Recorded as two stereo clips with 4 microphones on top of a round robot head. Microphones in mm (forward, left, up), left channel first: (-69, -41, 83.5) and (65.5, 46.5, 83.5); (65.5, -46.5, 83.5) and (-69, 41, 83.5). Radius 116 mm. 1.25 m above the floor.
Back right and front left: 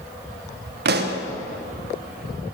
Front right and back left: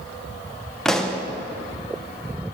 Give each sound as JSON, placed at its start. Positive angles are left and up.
{"t": 0.8, "sound": "a pop", "azimuth_deg": 55, "distance_m": 0.9}